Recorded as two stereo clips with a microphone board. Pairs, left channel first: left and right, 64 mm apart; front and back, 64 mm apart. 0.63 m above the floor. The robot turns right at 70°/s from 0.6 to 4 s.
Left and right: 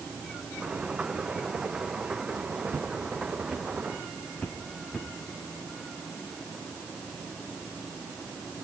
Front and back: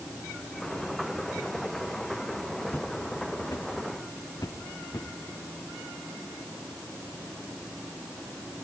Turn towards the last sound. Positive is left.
turn(degrees=5)